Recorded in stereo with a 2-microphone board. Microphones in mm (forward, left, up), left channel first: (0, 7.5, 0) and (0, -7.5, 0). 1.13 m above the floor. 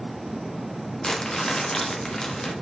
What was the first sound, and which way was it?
Crumpling, 50° left (ahead or behind).